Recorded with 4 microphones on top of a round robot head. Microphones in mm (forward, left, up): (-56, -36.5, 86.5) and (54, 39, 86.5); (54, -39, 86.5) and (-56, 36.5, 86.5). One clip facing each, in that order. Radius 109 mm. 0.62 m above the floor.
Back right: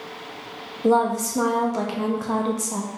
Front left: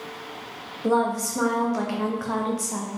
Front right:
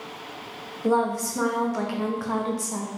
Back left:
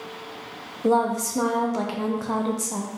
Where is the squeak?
I don't hear a squeak.